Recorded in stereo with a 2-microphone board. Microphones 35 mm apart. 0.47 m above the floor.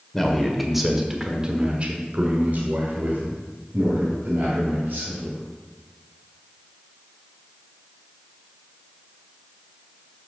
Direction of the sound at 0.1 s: 10° left (ahead or behind).